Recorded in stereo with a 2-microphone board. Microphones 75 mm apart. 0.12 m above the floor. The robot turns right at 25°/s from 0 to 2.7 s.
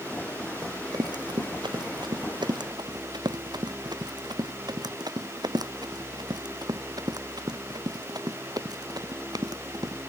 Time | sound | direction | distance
0.6 | running footsteps | 55° right (ahead or behind) | ?